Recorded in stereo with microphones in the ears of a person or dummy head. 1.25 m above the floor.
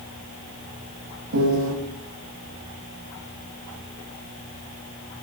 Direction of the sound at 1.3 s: 85° right.